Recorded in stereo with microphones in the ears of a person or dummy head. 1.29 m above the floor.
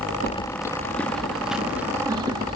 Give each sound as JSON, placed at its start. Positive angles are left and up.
{"t": 0.3, "sound": "keys jangling", "side_deg": 25, "distance_m": 1.5}